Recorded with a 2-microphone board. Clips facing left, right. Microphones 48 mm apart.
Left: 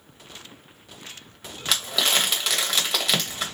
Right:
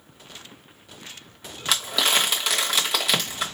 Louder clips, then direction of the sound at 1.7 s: Right 1 dB; 5° right (ahead or behind).